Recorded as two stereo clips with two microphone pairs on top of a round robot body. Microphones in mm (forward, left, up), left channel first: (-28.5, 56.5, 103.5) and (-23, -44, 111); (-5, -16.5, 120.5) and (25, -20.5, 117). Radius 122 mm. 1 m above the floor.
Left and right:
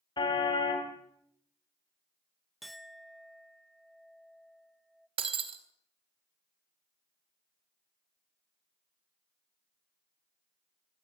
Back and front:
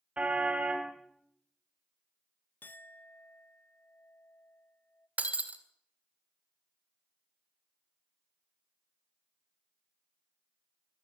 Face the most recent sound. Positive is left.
turn(degrees=-50)